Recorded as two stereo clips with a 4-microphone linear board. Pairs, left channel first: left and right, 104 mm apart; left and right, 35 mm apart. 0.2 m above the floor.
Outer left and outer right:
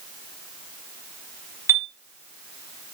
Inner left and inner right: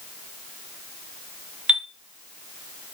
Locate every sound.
1.7 s a chime: 25° right (ahead or behind), 0.7 m